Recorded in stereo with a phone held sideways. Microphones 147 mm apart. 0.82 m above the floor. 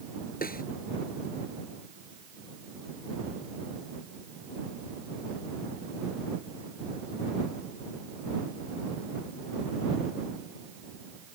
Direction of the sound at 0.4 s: 75° left (ahead or behind).